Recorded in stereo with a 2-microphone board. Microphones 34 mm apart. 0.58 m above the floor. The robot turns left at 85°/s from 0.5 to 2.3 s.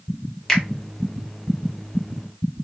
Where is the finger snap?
15° left (ahead or behind), 1.0 m; by 0.6 s 10° left (ahead or behind), 1.0 m.